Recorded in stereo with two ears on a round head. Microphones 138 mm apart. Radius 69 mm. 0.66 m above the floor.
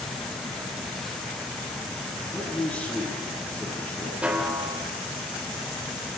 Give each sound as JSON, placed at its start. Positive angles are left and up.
{"t": 2.3, "sound": "a man speaking", "side_deg": 10, "distance_m": 7.0}
{"t": 4.2, "sound": "a snare drum", "side_deg": -10, "distance_m": 3.0}